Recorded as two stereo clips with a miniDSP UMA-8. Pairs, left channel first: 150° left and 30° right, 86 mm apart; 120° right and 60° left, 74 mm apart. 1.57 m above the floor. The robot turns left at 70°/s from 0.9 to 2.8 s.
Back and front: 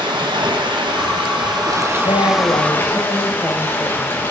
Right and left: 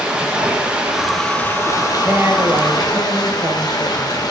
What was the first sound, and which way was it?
Running water, 15° right.